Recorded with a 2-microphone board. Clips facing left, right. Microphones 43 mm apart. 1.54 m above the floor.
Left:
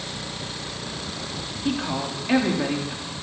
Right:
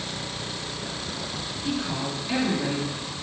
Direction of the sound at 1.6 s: 35° left (ahead or behind).